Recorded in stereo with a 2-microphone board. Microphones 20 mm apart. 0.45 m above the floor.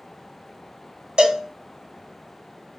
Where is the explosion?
I don't hear an explosion.